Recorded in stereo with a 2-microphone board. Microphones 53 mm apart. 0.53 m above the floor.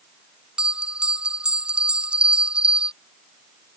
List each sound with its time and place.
0.6 s a bell: 20° right (ahead or behind)